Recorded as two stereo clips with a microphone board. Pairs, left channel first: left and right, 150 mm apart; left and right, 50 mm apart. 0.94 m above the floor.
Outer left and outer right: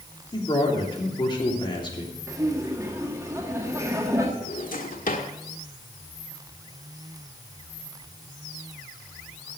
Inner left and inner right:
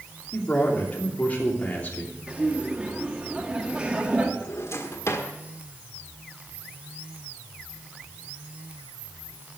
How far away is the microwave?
I don't hear a microwave.